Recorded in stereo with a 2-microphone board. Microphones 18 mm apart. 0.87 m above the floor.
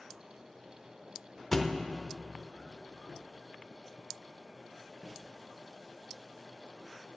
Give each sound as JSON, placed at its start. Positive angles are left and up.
{"t": 1.5, "sound": "a thud", "side_deg": 15, "distance_m": 0.6}